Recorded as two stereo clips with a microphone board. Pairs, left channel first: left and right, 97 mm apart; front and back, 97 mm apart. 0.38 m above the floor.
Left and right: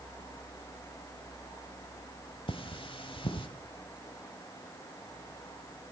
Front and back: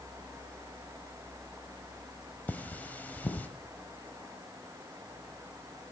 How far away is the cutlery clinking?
About 0.9 m.